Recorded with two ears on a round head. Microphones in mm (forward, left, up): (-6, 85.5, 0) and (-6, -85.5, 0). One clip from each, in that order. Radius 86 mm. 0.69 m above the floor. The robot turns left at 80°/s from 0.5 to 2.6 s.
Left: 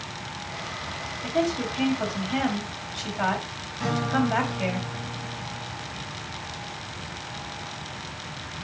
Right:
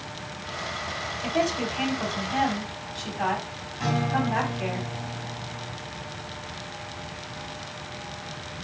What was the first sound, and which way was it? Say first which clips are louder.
A woman speaking: even; 40° right (ahead or behind).